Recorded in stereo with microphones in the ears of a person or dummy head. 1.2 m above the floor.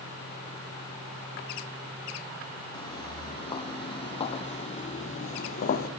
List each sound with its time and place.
2.7 s footsteps: 20° left (ahead or behind), 3 m; by 5.9 s 45° left (ahead or behind), 2.5 m